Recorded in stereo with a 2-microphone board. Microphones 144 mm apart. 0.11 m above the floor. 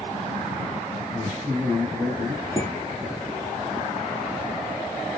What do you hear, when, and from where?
1.1 s a man speaking: 5° right (ahead or behind), 1.2 m
2.6 s dishes clattering: 30° left (ahead or behind), 1.2 m